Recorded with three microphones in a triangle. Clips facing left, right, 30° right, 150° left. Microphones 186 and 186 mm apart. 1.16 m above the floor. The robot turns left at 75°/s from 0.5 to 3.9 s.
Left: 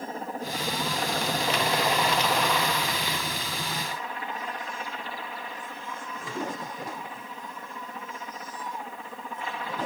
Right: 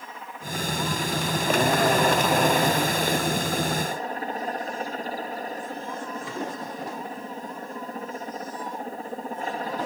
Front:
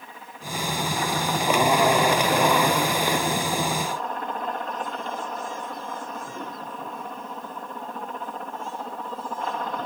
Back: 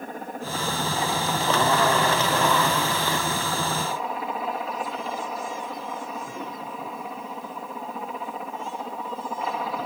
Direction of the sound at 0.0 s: 130° left.